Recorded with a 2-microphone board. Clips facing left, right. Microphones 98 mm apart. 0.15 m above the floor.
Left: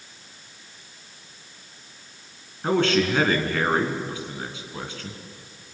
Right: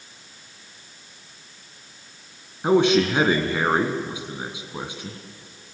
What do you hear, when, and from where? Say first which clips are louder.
2.6 s a man speaking: right 4 dB; 15° right (ahead or behind), 2.0 m